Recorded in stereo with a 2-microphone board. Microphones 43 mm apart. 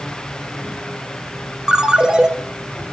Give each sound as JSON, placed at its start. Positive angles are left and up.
{"t": 1.7, "sound": "a ringtone", "side_deg": -15, "distance_m": 0.8}